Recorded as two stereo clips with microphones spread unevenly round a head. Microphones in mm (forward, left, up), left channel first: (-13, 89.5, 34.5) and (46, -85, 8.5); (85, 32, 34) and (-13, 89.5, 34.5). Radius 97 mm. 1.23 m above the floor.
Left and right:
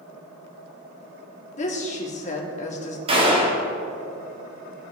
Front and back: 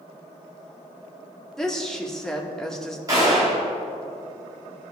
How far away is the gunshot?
About 1.4 m.